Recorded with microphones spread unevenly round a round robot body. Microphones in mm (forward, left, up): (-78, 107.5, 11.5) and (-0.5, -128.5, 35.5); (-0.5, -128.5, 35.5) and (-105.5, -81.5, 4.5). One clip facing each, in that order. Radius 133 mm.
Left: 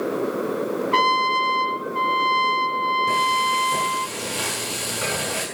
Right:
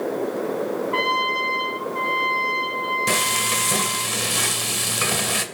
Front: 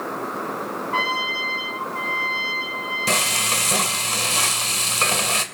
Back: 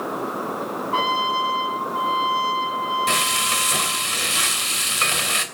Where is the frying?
75° right, 2.5 m.